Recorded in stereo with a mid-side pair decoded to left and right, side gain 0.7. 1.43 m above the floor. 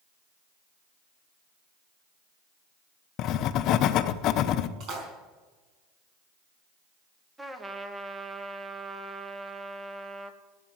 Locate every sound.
3.2 s writing: 55° left, 0.8 m
4.8 s a splash: 55° right, 5 m
7.4 s a trumpet: 10° right, 1.2 m